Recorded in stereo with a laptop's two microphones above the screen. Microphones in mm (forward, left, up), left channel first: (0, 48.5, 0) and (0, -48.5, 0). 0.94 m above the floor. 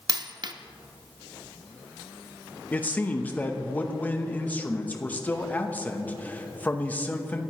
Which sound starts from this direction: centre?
A man speaking, at 2.7 s.